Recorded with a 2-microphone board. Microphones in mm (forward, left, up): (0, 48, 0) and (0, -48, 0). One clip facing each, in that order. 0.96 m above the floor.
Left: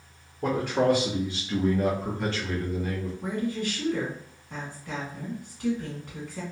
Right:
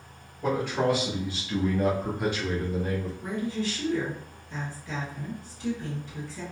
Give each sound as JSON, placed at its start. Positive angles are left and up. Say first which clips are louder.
{"t": 0.4, "sound": "a man speaking", "louder": "left 2 dB", "side_deg": 45, "distance_m": 1.1}
{"t": 3.2, "sound": "a woman speaking", "louder": "left 4 dB", "side_deg": 55, "distance_m": 1.4}